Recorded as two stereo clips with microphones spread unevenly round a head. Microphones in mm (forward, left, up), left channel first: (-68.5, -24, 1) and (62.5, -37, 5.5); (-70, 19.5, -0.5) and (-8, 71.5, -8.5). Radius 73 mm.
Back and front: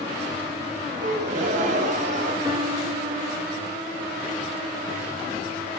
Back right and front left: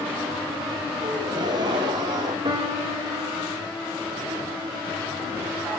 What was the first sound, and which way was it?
A gasp, 5° left.